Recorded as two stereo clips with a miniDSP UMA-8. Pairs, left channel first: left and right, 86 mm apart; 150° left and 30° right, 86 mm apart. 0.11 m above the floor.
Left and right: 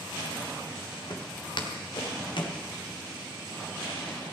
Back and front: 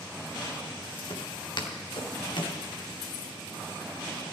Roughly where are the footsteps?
Behind left.